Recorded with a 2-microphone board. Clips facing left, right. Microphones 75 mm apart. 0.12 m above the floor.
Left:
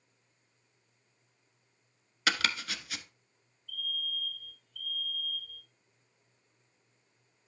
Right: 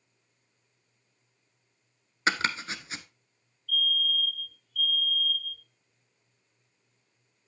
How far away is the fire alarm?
About 6 m.